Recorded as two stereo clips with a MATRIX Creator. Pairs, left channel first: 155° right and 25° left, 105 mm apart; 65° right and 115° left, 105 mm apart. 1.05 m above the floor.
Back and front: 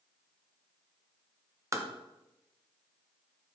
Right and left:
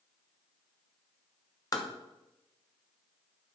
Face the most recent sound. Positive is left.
turn(degrees=-30)